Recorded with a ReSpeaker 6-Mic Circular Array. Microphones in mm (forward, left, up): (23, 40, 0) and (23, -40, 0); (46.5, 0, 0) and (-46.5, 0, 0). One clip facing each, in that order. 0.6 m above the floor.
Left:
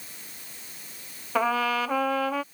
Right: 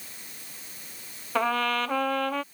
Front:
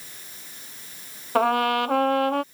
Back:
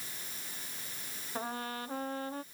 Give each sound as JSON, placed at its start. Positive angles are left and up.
{"t": 1.4, "sound": "a trumpet", "azimuth_deg": 5}